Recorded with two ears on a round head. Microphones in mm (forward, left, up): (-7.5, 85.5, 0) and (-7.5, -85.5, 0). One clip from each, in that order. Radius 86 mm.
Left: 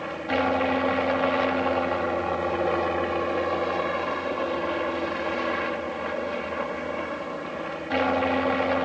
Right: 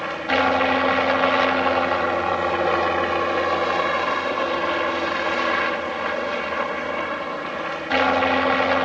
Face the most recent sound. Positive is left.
turn(degrees=-40)  # may be behind; listen again after turning